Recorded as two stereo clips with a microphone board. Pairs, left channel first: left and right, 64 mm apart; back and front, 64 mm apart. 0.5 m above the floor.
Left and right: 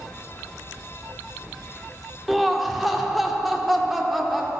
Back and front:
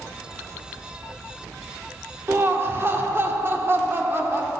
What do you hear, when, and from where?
2.3 s laughter: straight ahead, 1.5 m